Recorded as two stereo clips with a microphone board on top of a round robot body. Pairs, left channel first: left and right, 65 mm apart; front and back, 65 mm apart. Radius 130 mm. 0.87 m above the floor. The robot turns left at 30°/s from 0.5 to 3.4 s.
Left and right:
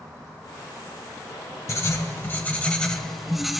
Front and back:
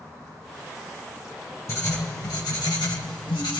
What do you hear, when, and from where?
1.7 s writing: 50° left, 1.9 m; by 3.6 s straight ahead, 1.9 m